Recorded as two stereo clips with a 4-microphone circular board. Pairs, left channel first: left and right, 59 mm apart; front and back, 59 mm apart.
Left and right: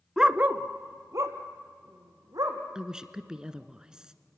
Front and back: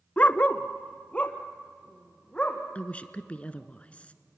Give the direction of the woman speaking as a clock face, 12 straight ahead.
1 o'clock.